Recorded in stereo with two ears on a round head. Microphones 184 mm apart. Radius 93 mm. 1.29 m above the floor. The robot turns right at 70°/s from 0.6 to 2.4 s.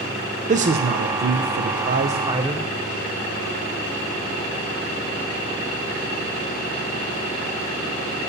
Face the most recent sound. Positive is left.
turn(degrees=-15)